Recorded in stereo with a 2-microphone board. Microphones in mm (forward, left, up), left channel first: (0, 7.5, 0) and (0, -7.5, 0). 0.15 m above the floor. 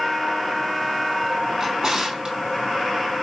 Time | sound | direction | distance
1.6 | a drawer | 40° right (ahead or behind) | 2.5 m